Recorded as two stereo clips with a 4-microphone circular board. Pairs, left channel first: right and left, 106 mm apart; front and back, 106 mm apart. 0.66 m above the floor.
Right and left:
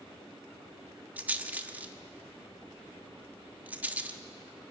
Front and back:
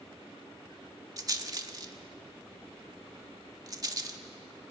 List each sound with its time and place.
1.2 s a rattle: 155° left, 1.4 m